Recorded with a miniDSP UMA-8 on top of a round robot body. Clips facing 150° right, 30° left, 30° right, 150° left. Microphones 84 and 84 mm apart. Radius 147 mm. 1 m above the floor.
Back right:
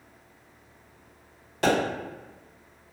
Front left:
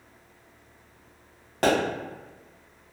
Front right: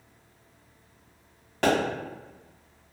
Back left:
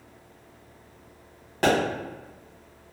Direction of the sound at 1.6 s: 70° left.